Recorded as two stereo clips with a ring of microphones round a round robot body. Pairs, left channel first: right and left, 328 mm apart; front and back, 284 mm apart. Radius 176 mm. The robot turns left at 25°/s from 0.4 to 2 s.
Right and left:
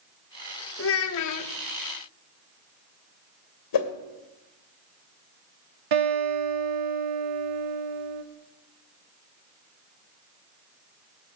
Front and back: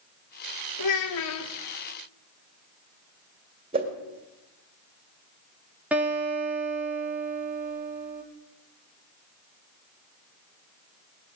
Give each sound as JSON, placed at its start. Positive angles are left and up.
{"t": 0.8, "sound": "a child speaking", "azimuth_deg": -35, "distance_m": 1.1}
{"t": 3.7, "sound": "a whoosh", "azimuth_deg": -110, "distance_m": 2.0}
{"t": 5.9, "sound": "a guitar", "azimuth_deg": 95, "distance_m": 3.0}